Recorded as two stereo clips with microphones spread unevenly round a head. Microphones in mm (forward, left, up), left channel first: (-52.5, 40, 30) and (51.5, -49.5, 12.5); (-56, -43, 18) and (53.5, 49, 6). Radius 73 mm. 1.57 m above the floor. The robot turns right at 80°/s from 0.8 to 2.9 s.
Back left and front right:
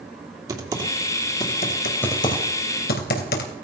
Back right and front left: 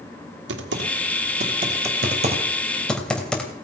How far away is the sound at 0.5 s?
About 2.5 m.